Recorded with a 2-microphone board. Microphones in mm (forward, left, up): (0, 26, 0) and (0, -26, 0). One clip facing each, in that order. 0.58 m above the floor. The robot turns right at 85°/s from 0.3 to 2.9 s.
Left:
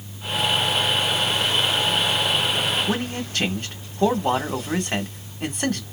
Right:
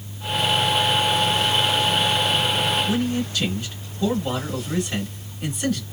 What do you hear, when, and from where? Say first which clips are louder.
2.9 s a man speaking: right 3 dB; 50° left (ahead or behind), 1.6 m; by 5.8 s 45° left (ahead or behind), 1.6 m